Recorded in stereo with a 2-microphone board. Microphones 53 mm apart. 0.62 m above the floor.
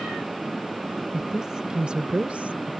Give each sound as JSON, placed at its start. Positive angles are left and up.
{"t": 1.1, "sound": "a woman speaking", "side_deg": -10}